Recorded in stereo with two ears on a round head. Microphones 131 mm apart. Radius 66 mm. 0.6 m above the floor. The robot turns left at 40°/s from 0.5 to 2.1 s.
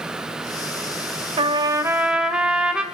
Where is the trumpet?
35° right (ahead or behind), 1.8 m; by 2.8 s 5° right (ahead or behind), 1.8 m.